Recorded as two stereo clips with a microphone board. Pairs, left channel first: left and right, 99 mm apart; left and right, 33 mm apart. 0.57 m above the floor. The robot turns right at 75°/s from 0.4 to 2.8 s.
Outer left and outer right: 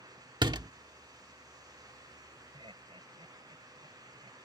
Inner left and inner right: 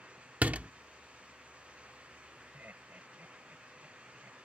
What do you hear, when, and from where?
0.4 s a door slam: 50° right (ahead or behind)
2.5 s laughter: 55° right (ahead or behind); by 4.4 s 70° right (ahead or behind)